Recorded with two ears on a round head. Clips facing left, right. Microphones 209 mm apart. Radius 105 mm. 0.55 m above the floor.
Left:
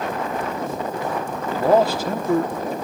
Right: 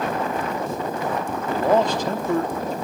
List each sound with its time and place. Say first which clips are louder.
1.5 s a man speaking: left 2 dB; 5° left (ahead or behind), 1.0 m